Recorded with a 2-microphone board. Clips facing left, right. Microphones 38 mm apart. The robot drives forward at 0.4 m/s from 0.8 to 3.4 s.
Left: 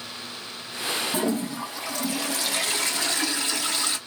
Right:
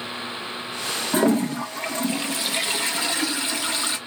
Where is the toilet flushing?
55° right (ahead or behind), 0.5 m; by 4.0 s 20° right (ahead or behind), 1.2 m.